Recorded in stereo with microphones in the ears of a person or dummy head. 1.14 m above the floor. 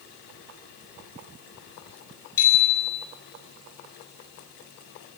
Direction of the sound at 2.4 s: 20° left (ahead or behind).